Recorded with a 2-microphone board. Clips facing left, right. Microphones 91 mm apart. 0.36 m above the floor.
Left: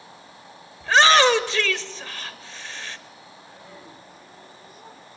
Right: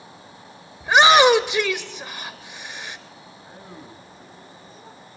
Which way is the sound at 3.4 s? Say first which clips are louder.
Right 4 dB; 35° right (ahead or behind).